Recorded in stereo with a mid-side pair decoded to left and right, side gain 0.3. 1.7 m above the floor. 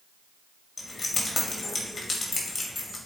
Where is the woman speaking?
I don't hear a woman speaking.